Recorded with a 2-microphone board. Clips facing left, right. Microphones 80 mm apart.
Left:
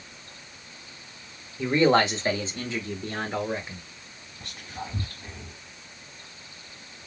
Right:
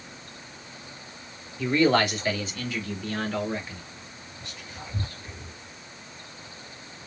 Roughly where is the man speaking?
Left.